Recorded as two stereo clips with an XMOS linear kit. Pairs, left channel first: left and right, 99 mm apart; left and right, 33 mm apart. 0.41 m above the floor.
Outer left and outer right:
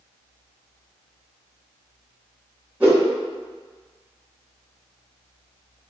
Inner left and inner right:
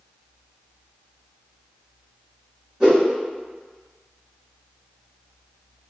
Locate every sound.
2.8 s a whoosh: 15° right (ahead or behind), 1.6 m